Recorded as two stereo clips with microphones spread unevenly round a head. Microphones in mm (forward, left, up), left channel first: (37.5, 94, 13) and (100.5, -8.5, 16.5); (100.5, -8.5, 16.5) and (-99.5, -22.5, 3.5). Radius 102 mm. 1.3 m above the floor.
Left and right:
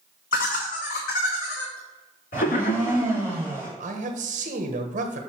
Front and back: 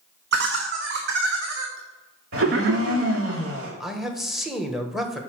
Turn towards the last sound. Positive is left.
turn(degrees=-90)